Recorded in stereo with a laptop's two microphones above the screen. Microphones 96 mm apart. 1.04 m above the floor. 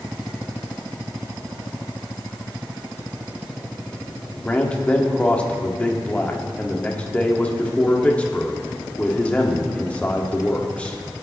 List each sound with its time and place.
4.5 s a man speaking: 15° left (ahead or behind), 1.9 m